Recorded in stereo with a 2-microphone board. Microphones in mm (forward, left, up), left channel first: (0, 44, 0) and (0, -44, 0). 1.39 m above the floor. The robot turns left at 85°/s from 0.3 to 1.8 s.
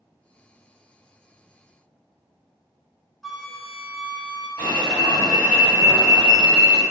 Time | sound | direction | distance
3.2 | a flute | centre (ahead or behind) | 0.6 m
4.6 | an alarm | 50° left (ahead or behind) | 1.7 m